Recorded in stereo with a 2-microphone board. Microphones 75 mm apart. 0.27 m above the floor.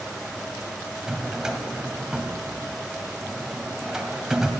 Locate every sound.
1.1 s a drawer: 10° right (ahead or behind), 0.6 m